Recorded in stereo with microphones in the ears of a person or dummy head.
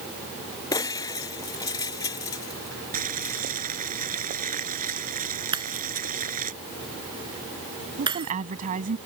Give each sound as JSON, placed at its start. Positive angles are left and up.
{"t": 0.7, "sound": "breaking glass", "side_deg": 20}
{"t": 2.9, "sound": "boiling", "side_deg": -40}
{"t": 5.5, "sound": "breaking glass", "side_deg": -25}
{"t": 8.0, "sound": "a woman speaking", "side_deg": -35}